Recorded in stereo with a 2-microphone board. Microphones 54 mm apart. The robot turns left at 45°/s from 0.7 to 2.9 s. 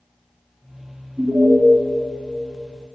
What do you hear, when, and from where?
1.2 s an alarm: 25° right (ahead or behind), 2.5 m; by 1.6 s 15° right (ahead or behind), 2.5 m